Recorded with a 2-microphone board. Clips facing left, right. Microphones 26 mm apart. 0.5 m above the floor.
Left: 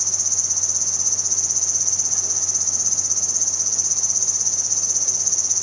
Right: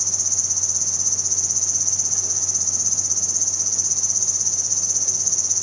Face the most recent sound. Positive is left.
turn(degrees=5)  # may be behind; listen again after turning